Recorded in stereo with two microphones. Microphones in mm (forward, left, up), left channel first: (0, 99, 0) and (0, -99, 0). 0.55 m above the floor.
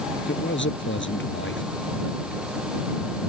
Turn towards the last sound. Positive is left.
turn(degrees=70)  # may be behind; listen again after turning